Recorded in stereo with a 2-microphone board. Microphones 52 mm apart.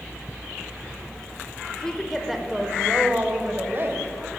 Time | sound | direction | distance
1.7 | a woman speaking | 15° left (ahead or behind) | 0.9 m